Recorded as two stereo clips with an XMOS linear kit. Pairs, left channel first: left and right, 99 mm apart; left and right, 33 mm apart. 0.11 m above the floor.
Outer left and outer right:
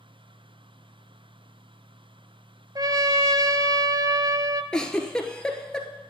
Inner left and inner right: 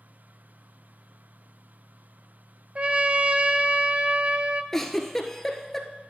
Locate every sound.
2.8 s a trumpet: 40° right (ahead or behind), 0.6 m
4.7 s a giggle: 10° left (ahead or behind), 1.1 m